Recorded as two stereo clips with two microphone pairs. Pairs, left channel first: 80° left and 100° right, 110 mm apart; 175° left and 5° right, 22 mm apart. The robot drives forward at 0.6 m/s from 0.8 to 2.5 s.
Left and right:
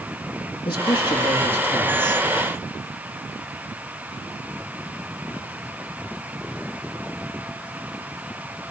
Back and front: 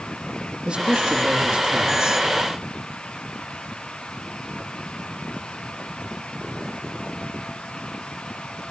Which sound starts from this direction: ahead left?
A man speaking, at 0.7 s.